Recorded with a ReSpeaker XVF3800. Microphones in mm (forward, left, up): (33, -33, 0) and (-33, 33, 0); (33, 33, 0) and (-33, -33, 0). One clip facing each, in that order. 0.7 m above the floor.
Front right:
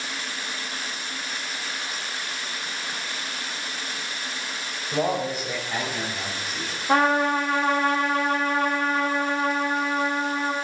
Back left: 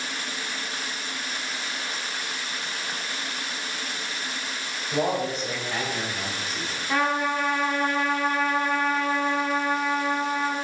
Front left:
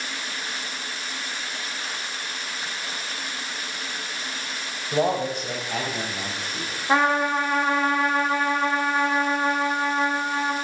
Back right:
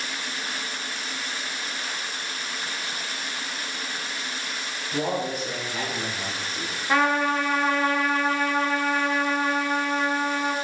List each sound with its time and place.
4.9 s a man speaking: 40° left, 4 m; by 6.8 s 35° left, 6.5 m
6.9 s a trumpet: 20° right, 2 m